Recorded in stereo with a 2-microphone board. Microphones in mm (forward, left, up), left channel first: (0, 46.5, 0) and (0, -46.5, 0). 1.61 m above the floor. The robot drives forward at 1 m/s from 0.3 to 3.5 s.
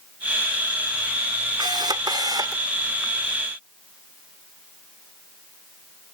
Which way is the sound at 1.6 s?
60° right (ahead or behind).